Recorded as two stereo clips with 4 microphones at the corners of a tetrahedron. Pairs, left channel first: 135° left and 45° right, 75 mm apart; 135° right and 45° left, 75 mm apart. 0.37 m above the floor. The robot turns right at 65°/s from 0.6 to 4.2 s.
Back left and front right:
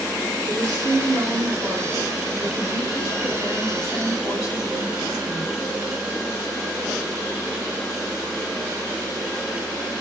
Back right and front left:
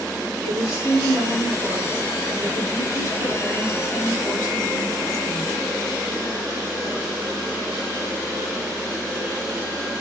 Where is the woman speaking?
55° right, 1.8 m; by 5.5 s straight behind, 1.8 m.